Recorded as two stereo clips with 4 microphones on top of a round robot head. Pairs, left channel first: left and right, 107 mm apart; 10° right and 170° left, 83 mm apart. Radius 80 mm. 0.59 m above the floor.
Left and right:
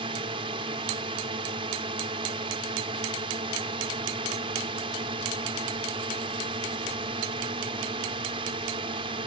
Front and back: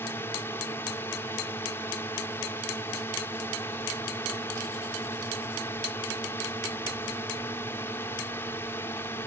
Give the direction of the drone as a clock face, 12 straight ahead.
2 o'clock.